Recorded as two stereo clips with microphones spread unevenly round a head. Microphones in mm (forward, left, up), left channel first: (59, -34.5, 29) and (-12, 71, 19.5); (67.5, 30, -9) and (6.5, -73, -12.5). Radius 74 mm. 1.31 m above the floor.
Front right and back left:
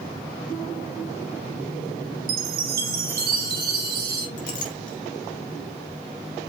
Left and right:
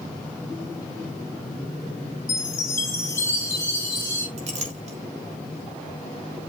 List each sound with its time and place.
2.3 s a chime: 130° left, 1.4 m
4.4 s a clink: 95° right, 2.5 m